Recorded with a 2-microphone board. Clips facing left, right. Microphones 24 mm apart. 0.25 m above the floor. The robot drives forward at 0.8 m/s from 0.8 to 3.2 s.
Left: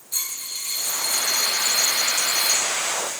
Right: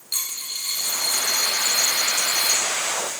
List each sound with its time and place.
0.1 s a dropped coin: 80° right, 3 m; by 2.6 s 60° right (ahead or behind), 3.5 m